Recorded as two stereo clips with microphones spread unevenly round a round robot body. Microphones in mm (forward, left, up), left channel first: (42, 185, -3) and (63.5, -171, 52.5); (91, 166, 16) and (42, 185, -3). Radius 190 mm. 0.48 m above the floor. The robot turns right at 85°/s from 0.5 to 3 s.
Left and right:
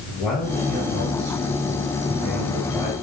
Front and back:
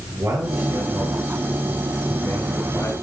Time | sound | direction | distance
0.1 | a man speaking | 175° left | 8 m